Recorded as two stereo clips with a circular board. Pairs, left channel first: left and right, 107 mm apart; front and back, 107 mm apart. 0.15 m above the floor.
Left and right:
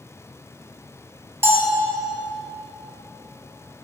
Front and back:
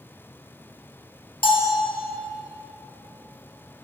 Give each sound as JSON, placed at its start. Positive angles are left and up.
{"t": 1.4, "sound": "a bell", "azimuth_deg": -25, "distance_m": 1.2}